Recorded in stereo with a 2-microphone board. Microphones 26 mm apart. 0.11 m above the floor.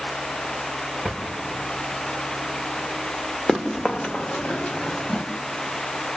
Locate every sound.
1.1 s a drawer: 50° left (ahead or behind), 5.5 m
3.5 s running footsteps: 30° left (ahead or behind), 1.5 m; by 5.2 s 45° left (ahead or behind), 1.8 m